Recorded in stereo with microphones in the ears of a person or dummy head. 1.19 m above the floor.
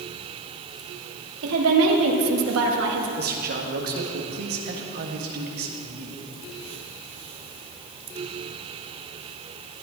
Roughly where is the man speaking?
Right.